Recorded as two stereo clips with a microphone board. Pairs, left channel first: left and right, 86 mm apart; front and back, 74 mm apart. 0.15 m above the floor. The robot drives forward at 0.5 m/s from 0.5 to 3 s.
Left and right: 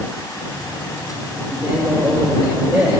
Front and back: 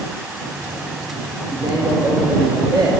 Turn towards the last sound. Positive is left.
turn(degrees=-170)